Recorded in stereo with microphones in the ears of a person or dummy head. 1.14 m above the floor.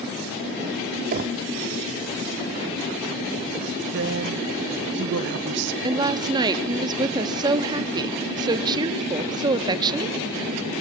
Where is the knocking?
45° right (ahead or behind), 2 m.